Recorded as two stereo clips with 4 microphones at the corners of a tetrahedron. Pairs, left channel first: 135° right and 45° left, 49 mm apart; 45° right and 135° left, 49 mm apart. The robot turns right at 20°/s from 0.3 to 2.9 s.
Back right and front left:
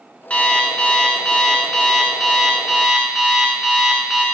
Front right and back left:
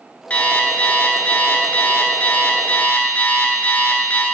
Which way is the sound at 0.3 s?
85° right.